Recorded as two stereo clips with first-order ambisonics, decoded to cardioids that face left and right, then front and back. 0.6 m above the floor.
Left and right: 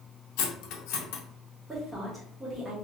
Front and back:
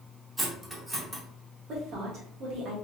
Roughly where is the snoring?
I don't hear snoring.